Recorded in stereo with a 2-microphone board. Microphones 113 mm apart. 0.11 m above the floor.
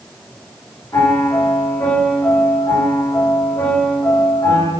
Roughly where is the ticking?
No ticking in this recording.